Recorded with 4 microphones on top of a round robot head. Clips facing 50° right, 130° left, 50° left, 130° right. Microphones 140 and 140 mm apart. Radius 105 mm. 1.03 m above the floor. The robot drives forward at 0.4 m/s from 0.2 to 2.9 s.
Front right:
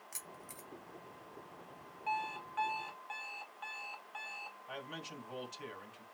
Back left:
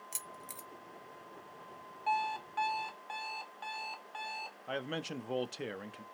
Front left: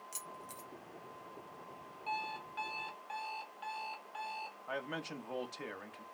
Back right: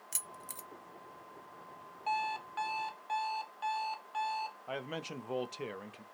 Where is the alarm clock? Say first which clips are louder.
Back left 5 dB, back right 6 dB; 175° right, 0.6 m.